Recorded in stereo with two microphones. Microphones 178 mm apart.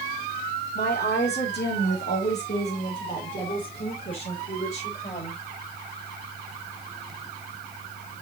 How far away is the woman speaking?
About 2.0 m.